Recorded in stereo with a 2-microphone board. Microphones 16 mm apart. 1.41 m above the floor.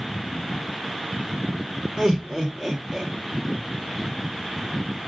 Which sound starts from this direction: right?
Laughter, at 2.0 s.